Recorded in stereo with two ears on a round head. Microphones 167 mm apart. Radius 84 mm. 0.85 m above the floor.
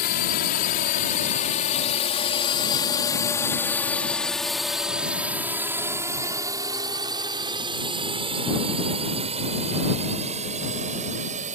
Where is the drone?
55° left (ahead or behind); by 11.6 s 40° right (ahead or behind).